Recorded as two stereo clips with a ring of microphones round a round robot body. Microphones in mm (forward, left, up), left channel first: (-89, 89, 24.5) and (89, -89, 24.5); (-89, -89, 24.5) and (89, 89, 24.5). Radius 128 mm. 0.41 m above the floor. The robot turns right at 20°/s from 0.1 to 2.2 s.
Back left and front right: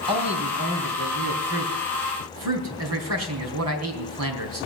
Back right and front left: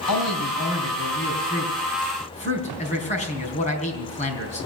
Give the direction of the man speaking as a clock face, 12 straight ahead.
4 o'clock.